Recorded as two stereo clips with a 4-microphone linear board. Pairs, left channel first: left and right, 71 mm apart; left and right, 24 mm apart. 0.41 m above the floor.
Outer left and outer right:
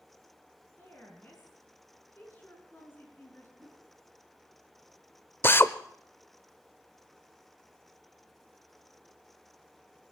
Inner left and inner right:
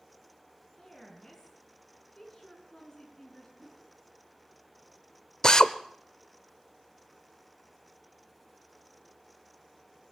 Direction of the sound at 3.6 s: 15° right (ahead or behind).